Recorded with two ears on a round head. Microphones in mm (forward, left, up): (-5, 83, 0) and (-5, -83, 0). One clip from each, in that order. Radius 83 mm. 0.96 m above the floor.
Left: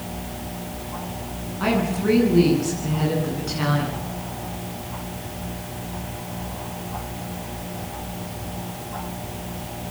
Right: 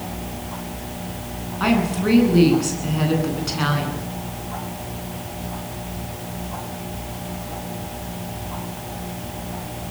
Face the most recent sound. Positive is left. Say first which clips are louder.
# right 2 dB
turn(degrees=-30)  # may be behind; listen again after turning